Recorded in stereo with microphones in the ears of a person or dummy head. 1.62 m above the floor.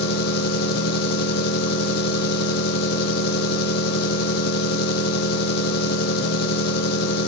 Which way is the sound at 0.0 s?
65° left (ahead or behind).